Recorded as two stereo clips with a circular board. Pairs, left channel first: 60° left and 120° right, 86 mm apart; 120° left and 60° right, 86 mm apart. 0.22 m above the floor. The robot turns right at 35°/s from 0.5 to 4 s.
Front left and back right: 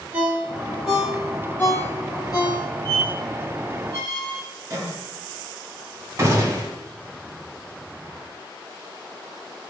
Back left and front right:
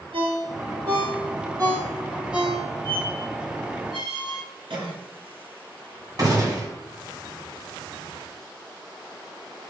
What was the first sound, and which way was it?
A ringtone, 50° right.